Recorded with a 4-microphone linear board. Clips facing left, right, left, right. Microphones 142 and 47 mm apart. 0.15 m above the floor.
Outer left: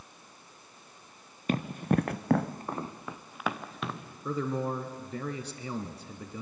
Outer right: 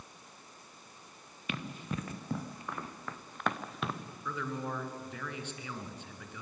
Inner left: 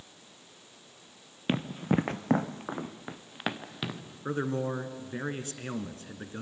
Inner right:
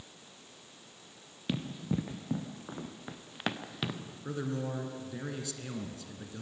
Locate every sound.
1.5 s running footsteps: 40° left (ahead or behind), 1.2 m; by 4.0 s centre (ahead or behind), 2 m
4.2 s a man speaking: 40° left (ahead or behind), 1.9 m